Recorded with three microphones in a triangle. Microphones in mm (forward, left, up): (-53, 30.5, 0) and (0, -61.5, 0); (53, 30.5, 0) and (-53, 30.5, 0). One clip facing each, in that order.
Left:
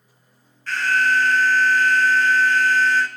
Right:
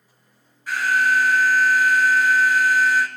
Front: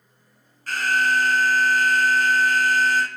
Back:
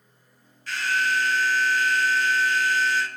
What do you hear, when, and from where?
0.7 s an alarm: 15° left, 1.4 m